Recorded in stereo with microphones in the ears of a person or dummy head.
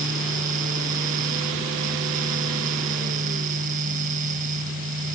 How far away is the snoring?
I don't hear snoring.